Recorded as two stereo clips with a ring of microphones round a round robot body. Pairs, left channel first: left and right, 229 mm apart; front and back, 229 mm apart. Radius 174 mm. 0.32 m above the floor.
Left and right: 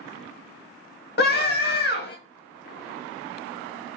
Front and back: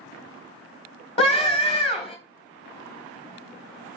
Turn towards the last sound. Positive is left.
turn(degrees=60)